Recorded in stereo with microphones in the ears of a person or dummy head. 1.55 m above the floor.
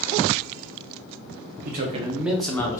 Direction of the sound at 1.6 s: 55° right (ahead or behind).